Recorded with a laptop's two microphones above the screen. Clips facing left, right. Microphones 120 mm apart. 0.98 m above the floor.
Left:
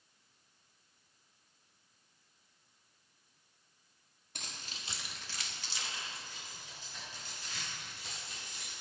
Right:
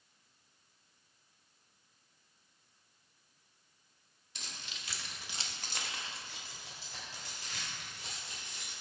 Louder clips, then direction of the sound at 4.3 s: Left 1 dB; 55° left (ahead or behind).